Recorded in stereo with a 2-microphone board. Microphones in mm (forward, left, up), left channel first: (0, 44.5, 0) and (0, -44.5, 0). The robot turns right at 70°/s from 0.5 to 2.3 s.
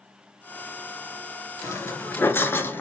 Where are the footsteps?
40° left (ahead or behind), 0.6 m; by 2.8 s 25° left (ahead or behind), 0.6 m.